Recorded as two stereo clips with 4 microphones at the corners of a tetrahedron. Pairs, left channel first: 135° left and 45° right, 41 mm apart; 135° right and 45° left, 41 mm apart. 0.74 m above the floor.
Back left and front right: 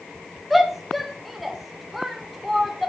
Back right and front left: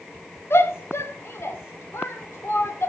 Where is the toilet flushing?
No toilet flushing in this recording.